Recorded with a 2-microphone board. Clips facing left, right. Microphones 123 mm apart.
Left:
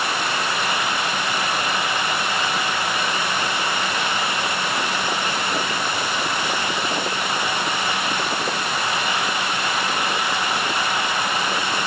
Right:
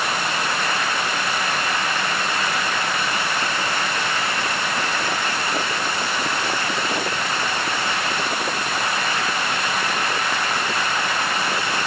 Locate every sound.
Only background noise.